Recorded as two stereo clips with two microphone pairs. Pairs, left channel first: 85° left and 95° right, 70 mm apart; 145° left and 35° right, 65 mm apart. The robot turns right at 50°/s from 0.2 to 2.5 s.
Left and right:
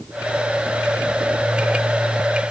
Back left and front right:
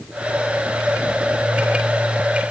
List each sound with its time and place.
Only background noise.